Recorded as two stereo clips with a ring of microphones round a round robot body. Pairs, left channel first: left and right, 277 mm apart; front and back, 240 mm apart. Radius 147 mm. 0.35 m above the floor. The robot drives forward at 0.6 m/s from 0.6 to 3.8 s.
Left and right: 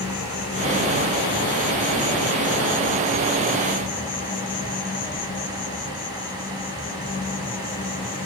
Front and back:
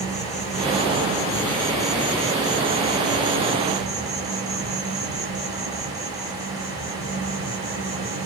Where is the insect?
50° left, 1.6 m; by 8.3 s 145° left, 1.9 m.